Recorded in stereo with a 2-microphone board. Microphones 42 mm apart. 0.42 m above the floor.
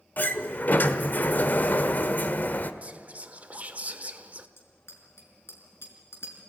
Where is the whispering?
35° right (ahead or behind), 1.2 m.